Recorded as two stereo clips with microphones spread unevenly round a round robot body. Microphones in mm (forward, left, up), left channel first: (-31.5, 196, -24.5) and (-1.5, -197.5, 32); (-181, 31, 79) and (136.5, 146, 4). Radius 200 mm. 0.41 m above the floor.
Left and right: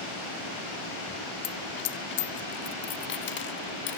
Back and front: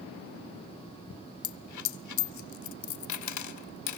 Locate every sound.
1.4 s a dropped coin: 160° left, 0.9 m